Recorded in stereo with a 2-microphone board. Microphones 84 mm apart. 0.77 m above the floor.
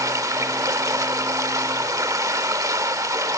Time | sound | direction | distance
0.0 | running water | 45° right (ahead or behind) | 1.0 m